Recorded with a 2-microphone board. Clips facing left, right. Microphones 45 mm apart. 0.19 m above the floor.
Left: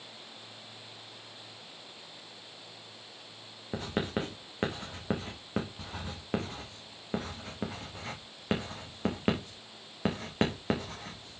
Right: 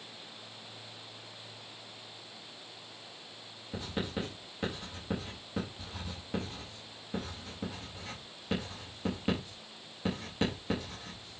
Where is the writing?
50° left (ahead or behind), 4 m.